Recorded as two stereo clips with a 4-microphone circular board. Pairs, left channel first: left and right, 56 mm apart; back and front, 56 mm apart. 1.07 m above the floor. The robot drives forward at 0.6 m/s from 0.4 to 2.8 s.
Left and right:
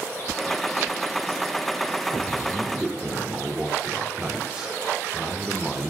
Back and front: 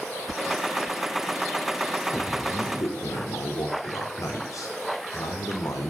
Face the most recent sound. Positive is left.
turn(degrees=-165)